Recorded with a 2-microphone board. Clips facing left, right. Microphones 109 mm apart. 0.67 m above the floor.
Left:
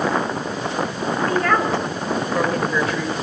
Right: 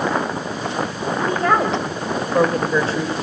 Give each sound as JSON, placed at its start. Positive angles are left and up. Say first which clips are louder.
{"t": 1.3, "sound": "a woman speaking", "louder": "right 2 dB", "side_deg": -20, "distance_m": 3.0}